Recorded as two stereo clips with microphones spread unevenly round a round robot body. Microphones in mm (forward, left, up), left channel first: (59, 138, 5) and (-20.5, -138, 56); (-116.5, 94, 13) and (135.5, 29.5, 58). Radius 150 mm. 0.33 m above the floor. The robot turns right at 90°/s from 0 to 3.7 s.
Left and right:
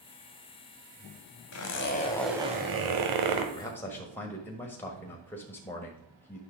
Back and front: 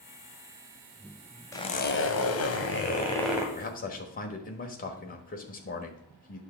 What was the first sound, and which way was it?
A zipper, 90° left.